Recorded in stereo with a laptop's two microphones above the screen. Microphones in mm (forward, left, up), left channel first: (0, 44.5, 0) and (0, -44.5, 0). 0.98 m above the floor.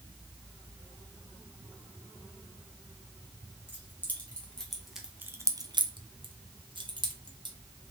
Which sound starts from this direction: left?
Keys jangling, at 3.7 s.